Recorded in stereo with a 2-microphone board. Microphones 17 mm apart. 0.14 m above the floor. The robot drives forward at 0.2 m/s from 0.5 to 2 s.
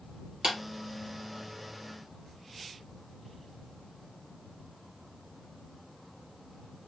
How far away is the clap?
About 1.6 m.